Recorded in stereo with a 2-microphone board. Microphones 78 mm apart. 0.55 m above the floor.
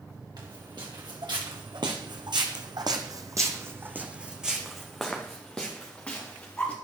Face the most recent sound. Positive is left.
turn(degrees=20)  # may be behind; listen again after turning